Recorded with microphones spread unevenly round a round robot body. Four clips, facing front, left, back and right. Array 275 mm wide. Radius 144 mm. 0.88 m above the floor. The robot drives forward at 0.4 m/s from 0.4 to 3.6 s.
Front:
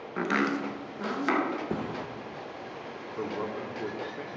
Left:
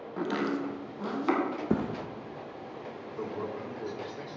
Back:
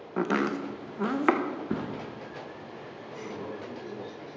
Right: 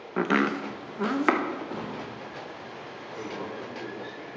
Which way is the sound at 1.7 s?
80° left.